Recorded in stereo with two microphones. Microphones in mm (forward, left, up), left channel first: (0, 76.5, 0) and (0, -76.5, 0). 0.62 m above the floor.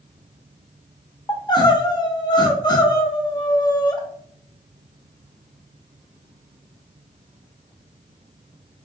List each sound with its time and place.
1.3 s crying: 30° left (ahead or behind), 0.8 m